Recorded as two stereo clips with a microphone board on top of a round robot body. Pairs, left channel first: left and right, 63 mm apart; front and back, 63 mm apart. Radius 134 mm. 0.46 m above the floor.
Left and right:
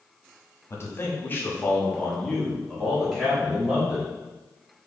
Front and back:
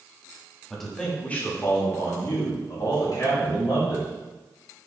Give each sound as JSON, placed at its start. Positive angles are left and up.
{"t": 0.7, "sound": "a man speaking", "azimuth_deg": 85, "distance_m": 1.2}